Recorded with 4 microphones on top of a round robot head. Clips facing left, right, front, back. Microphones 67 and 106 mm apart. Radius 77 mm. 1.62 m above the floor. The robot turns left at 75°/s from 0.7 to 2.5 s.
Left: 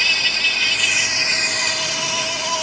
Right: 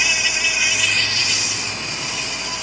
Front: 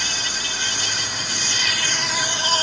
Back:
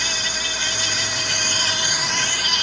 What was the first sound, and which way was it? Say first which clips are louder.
An insect: even, back 1 dB; 170° right.